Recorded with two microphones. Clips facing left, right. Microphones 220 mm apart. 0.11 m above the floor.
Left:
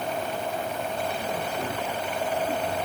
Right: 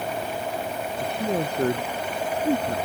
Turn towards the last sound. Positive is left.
turn(degrees=-80)